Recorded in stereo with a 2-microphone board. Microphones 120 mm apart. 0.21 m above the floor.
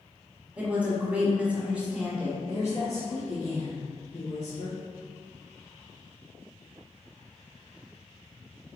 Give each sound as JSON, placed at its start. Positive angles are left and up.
{"t": 0.6, "sound": "a woman speaking", "side_deg": -10, "distance_m": 1.2}
{"t": 2.5, "sound": "a woman speaking", "side_deg": 50, "distance_m": 1.9}